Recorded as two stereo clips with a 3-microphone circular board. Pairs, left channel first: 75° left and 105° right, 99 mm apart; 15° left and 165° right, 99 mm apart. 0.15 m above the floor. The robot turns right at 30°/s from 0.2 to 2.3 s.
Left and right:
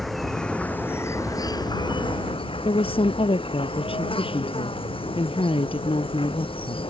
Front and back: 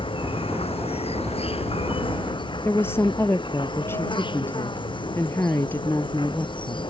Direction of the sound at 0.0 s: 15° right.